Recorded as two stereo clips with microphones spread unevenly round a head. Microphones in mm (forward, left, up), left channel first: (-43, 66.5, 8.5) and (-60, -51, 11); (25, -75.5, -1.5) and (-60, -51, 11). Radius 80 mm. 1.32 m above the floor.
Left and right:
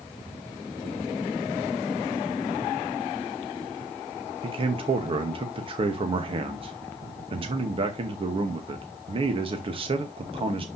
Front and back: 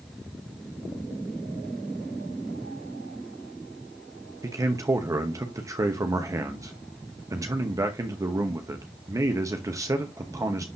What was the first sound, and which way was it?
A man speaking, 140° right.